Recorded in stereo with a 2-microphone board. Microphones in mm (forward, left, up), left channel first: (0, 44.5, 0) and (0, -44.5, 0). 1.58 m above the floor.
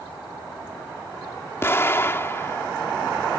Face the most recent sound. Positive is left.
turn(degrees=30)  # may be behind; listen again after turning